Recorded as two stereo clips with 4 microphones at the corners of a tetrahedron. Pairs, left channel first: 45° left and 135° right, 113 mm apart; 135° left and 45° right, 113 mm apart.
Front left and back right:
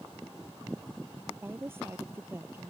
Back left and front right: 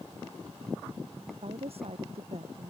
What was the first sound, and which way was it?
A woman speaking, 65° right.